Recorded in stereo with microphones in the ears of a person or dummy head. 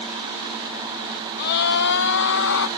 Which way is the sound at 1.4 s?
60° left (ahead or behind).